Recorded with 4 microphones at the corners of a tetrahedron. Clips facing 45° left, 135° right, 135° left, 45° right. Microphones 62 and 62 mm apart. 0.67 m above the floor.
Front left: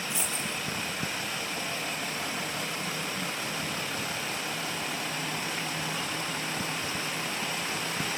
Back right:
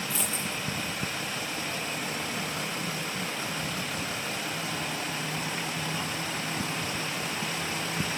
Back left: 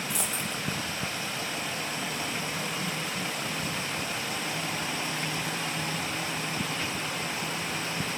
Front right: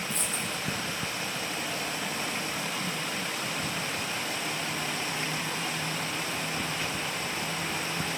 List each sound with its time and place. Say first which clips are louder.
0.1 s a dropped coin: back right 1 dB, even; 115° left, 4 m